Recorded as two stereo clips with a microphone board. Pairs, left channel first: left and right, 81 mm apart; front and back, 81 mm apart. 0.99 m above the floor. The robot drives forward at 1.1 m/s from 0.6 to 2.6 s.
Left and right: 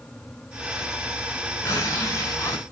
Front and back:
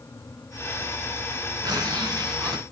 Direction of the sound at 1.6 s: 140° left.